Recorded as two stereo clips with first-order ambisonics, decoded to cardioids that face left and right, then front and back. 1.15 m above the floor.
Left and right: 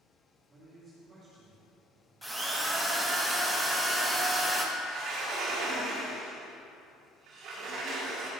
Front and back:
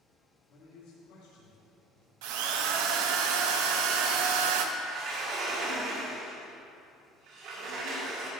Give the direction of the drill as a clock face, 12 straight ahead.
6 o'clock.